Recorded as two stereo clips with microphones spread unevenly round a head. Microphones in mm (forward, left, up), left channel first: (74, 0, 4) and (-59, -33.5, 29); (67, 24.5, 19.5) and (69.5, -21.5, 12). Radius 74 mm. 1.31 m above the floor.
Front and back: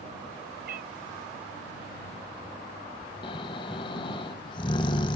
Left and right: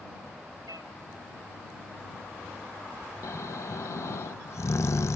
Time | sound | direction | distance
0.7 | a cat meowing | 145° right | ?
3.2 | snoring | 75° left | ?